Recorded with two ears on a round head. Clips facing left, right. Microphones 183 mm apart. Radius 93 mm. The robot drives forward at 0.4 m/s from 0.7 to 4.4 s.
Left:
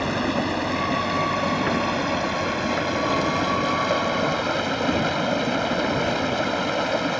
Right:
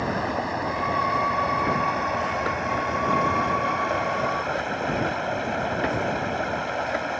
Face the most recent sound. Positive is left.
turn(degrees=50)  # may be behind; listen again after turning